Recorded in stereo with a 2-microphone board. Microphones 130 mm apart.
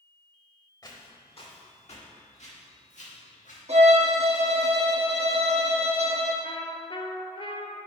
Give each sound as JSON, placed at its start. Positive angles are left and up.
{"t": 0.8, "sound": "footsteps", "side_deg": 35, "distance_m": 2.0}
{"t": 3.7, "sound": "a violin", "side_deg": -60, "distance_m": 1.1}
{"t": 6.4, "sound": "a trumpet", "side_deg": 45, "distance_m": 0.6}